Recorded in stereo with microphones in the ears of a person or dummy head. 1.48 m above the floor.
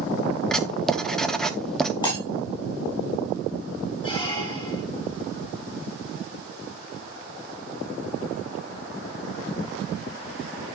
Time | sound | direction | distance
0.5 | writing | 5° left (ahead or behind) | 0.7 m
2.0 | breaking glass | 25° left (ahead or behind) | 4.5 m
4.0 | a squeak | 25° left (ahead or behind) | 3 m